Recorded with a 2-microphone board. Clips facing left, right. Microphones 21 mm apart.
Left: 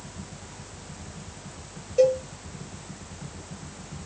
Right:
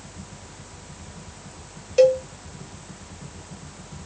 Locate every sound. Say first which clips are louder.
2.0 s a cowbell: right 4 dB; 65° right (ahead or behind), 0.6 m